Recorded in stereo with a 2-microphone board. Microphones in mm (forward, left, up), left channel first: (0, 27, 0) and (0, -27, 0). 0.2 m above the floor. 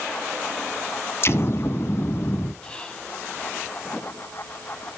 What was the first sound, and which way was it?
An explosion, 50° left (ahead or behind).